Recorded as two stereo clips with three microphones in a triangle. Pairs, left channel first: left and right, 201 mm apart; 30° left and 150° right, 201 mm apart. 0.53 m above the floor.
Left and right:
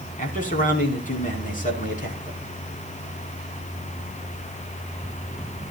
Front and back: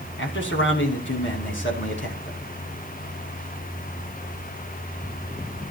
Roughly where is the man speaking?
Ahead left.